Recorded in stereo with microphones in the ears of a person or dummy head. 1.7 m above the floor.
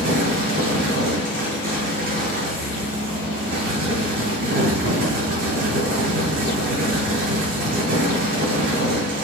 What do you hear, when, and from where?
0.0 s a fan: 60° right (ahead or behind), 2.0 m